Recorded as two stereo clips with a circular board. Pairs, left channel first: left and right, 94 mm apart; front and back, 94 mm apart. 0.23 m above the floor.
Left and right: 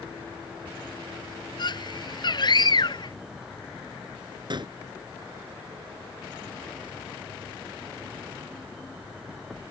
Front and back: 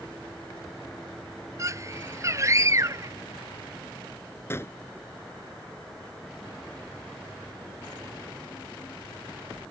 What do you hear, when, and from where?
1.6 s a scream: 125° left
4.5 s a gunshot: 60° right